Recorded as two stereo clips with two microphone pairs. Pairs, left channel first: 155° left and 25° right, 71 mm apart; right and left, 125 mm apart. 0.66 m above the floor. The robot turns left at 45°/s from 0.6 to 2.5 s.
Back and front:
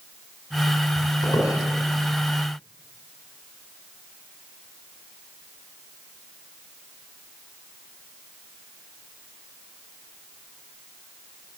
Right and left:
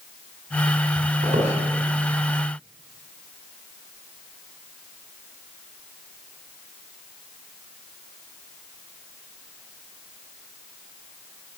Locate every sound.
1.2 s a squeak: 130° left, 5 m; by 1.5 s 115° left, 5 m